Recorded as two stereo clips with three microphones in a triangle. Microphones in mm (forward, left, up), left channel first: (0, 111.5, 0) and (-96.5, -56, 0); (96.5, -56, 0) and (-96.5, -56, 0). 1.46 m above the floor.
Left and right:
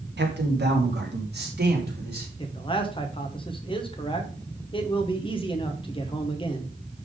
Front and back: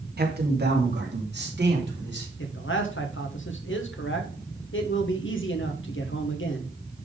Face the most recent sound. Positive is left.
turn(degrees=-5)